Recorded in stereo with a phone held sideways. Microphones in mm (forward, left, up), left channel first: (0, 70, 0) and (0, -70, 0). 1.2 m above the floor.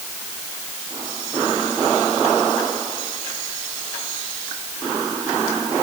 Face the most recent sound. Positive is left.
No sound to turn to.